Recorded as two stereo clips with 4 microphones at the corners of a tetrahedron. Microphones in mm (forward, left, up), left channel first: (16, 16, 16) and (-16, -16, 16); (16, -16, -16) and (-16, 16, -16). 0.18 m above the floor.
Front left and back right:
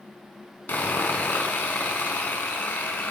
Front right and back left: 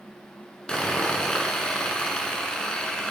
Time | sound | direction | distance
0.7 | sawing | 25° left | 0.7 m